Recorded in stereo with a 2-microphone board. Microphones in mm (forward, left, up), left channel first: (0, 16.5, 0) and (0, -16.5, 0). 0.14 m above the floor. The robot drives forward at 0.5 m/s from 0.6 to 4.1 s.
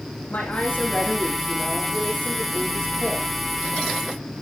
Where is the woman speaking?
60° left (ahead or behind), 8 m; by 3.3 s 55° left (ahead or behind), 9 m.